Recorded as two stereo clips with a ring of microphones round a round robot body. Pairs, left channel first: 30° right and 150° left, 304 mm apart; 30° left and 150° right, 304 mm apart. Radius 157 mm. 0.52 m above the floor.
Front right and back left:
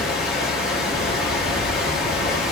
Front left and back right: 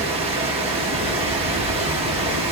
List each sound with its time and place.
0.0 s running water: 125° right, 0.8 m